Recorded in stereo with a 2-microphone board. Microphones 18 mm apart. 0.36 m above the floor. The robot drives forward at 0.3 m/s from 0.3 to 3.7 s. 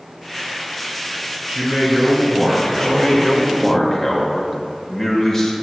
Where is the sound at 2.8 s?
15° left (ahead or behind), 0.8 m; by 5.5 s 10° left (ahead or behind), 0.9 m.